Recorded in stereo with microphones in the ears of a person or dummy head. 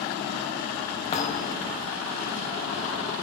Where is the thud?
35° left (ahead or behind), 2.5 m.